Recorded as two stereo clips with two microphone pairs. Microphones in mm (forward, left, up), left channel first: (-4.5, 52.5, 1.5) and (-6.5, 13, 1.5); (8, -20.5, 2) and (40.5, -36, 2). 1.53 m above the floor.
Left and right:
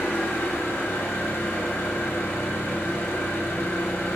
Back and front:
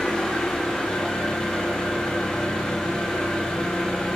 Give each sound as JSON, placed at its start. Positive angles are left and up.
{"t": 0.0, "sound": "an engine running", "azimuth_deg": 80, "distance_m": 0.9}